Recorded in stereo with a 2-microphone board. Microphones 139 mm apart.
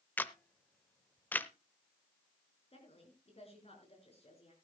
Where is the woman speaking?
45° left (ahead or behind), 6 m.